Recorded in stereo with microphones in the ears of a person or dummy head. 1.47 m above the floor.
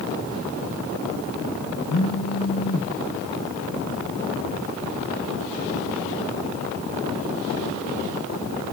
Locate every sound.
1.9 s a phone buzzing: 60° left (ahead or behind), 1.9 m